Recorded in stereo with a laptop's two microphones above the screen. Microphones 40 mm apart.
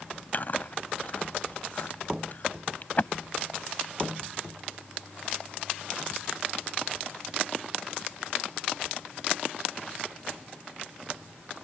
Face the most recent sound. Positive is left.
turn(degrees=40)  # may be behind; listen again after turning